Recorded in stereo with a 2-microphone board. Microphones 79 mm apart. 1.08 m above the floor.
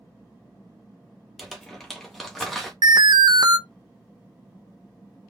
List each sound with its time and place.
1.4 s crumpling: centre (ahead or behind), 1.6 m
2.8 s an alarm: 60° right (ahead or behind), 0.6 m